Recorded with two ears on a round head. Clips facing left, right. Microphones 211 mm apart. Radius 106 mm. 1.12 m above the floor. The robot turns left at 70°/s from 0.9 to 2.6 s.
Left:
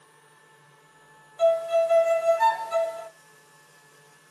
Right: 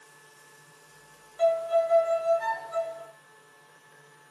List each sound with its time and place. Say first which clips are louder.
1.4 s a violin: left 2 dB; 170° left, 0.5 m; by 3.1 s 85° left, 0.5 m